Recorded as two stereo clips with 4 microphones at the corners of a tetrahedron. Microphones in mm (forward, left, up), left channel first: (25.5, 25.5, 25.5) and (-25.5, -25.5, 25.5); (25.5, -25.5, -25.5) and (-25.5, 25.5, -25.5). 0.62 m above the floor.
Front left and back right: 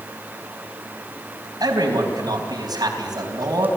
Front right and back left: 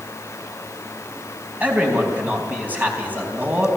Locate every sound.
1.6 s a man speaking: 160° right, 4 m